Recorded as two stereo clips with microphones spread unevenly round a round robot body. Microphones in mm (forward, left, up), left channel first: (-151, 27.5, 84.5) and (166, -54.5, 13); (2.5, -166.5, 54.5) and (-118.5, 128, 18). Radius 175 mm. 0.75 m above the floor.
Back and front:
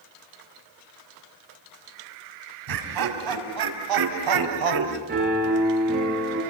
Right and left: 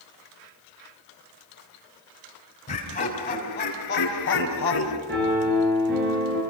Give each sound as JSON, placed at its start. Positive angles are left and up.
{"t": 2.7, "sound": "laughter", "azimuth_deg": 5, "distance_m": 6.0}
{"t": 5.1, "sound": "a piano", "azimuth_deg": 50, "distance_m": 7.5}